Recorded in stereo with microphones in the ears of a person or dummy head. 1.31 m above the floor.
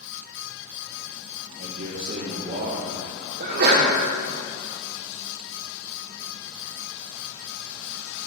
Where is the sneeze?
50° right (ahead or behind), 1.0 m.